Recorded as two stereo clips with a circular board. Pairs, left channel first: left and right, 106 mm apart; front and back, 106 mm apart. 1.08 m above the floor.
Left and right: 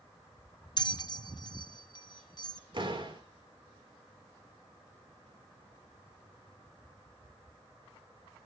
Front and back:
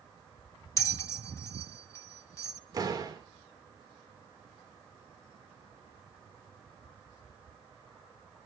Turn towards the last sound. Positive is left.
turn(degrees=-130)